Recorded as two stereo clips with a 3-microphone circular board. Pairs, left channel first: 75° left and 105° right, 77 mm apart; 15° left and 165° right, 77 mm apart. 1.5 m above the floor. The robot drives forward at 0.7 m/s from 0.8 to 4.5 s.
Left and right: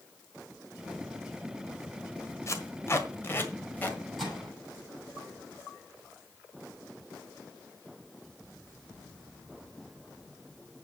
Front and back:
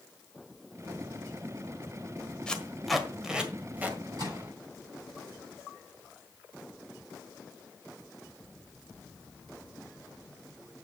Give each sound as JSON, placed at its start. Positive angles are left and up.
{"t": 2.5, "sound": "tape being pulled", "azimuth_deg": 85, "distance_m": 1.5}
{"t": 4.2, "sound": "a microwave", "azimuth_deg": 165, "distance_m": 8.0}